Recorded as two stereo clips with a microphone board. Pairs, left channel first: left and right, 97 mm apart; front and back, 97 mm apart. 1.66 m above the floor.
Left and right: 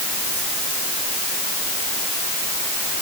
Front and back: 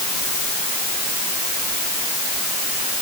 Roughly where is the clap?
No clap in this recording.